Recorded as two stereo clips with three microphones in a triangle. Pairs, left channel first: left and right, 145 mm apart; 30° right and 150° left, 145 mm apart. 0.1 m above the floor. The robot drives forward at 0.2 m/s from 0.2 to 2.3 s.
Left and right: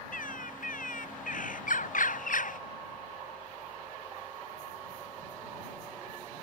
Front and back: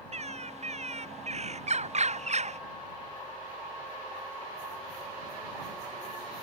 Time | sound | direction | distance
0.1 | a bird | 110° left | ?